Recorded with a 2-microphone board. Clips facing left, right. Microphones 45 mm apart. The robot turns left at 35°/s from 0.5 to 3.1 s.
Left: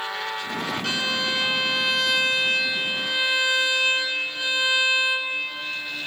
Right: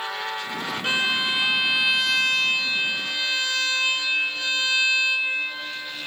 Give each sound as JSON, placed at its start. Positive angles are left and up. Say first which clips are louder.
{"t": 0.8, "sound": "a violin", "louder": "right 5 dB", "azimuth_deg": -135, "distance_m": 0.5}